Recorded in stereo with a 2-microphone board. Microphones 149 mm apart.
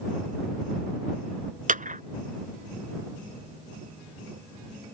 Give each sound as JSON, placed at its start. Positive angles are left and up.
{"t": 1.7, "sound": "a clap", "side_deg": -60}